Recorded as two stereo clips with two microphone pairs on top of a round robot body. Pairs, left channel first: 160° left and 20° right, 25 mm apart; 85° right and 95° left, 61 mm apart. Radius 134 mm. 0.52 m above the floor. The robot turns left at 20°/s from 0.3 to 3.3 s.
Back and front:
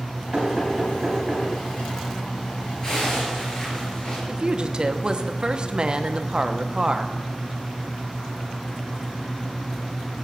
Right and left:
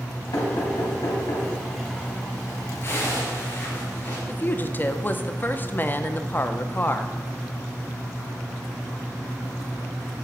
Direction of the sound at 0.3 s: 70° right.